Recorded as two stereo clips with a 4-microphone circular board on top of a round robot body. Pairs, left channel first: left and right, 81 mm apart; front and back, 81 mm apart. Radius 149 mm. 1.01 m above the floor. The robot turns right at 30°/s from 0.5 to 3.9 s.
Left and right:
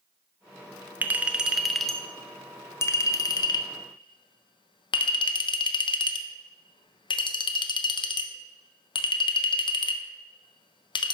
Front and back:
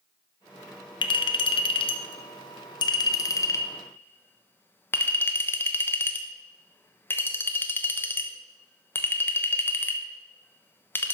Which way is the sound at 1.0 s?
20° right.